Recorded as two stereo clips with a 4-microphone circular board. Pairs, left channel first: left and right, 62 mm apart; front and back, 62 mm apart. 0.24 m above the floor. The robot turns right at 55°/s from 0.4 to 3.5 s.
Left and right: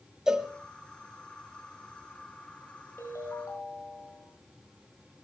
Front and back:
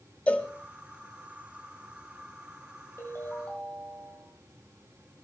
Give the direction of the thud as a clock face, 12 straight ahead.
I don't hear a thud.